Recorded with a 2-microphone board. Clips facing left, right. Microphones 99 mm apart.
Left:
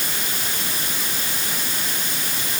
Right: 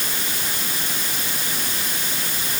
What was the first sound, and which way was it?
Only background noise.